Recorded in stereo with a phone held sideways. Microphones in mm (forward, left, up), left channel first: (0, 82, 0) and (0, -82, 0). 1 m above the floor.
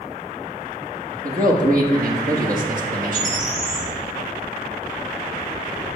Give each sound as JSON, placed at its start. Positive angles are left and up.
{"t": 1.2, "sound": "a man speaking", "side_deg": -55, "distance_m": 1.6}
{"t": 3.1, "sound": "a bird", "side_deg": -25, "distance_m": 2.5}